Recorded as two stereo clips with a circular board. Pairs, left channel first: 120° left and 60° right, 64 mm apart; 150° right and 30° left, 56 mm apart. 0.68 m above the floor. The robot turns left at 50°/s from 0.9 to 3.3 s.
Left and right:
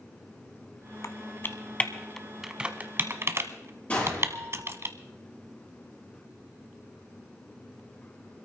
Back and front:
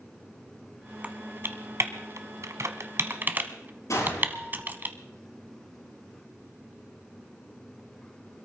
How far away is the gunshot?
About 10 m.